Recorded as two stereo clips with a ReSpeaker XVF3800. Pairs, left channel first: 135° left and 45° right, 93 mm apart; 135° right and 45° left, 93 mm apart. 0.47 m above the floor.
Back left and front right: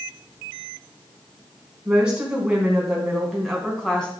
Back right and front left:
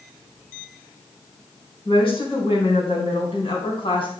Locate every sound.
1.9 s a woman speaking: 125° right, 4 m; by 4.1 s 145° right, 3.5 m